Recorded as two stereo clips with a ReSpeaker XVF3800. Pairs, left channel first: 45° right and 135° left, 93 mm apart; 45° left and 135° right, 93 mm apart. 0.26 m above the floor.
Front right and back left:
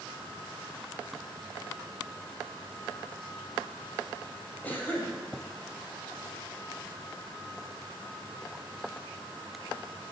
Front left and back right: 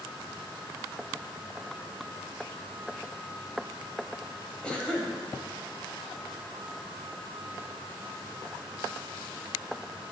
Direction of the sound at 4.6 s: 15° right.